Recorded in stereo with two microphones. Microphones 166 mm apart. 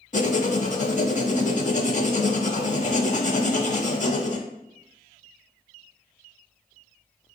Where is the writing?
50° left (ahead or behind), 0.5 m.